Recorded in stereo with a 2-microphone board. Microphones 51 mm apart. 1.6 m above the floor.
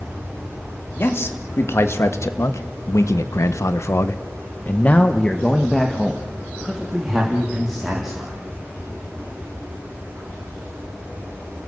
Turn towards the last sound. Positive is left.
turn(degrees=-10)  # may be behind; listen again after turning